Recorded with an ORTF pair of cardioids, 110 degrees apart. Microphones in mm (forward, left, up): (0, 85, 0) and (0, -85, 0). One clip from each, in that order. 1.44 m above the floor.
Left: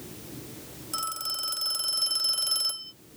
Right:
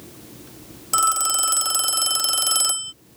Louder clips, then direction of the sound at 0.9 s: Right 12 dB; 65° right.